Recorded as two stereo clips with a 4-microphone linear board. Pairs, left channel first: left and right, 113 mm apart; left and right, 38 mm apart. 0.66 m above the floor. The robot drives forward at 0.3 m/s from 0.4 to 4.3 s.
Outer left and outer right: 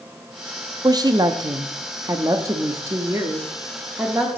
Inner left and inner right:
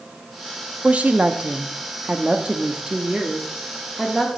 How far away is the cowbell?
I don't hear a cowbell.